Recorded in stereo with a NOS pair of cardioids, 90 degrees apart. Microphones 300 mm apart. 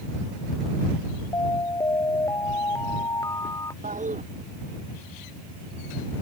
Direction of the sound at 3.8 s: 25° right.